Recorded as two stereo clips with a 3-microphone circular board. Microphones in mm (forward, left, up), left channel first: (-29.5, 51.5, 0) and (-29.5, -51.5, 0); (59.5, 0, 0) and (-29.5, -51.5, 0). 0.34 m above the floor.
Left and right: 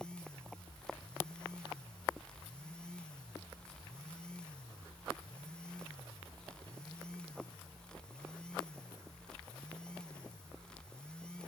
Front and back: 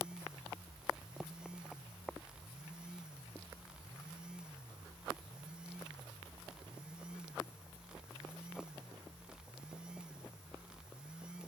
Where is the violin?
No violin in this recording.